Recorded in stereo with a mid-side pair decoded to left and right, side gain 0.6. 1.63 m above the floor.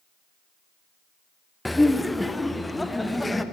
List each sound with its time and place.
1.6 s laughter: 10° left, 0.7 m